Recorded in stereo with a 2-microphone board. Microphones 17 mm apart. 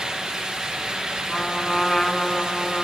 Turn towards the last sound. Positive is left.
turn(degrees=35)  # may be behind; listen again after turning